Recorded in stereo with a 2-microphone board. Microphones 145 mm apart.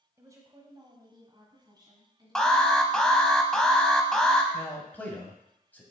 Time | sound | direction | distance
0.2 | a woman speaking | 20° right (ahead or behind) | 1.1 m
2.4 | an alarm | 5° left (ahead or behind) | 0.7 m
4.5 | a man speaking | 10° left (ahead or behind) | 1.2 m